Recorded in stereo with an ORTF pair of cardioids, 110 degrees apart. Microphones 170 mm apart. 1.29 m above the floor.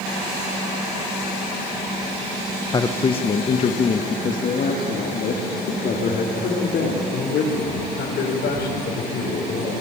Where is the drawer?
I don't hear a drawer.